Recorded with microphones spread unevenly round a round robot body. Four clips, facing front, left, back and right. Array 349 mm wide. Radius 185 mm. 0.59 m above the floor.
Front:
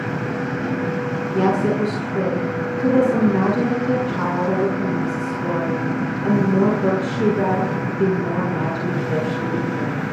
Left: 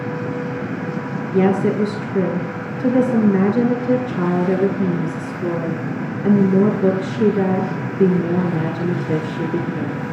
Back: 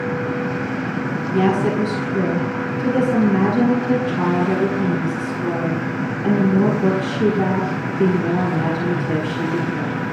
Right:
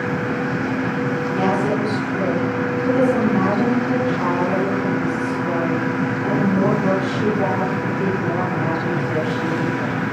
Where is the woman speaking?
130° left, 6 m.